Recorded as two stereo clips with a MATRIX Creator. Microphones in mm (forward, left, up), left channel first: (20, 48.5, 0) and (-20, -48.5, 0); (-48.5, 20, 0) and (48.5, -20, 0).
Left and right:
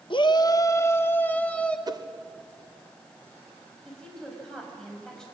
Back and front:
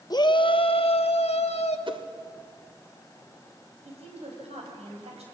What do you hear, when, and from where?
0.1 s a shout: 105° left, 0.8 m; by 1.8 s 145° left, 1.7 m
1.9 s a whoosh: 60° right, 0.8 m
3.9 s a woman speaking: 15° right, 6 m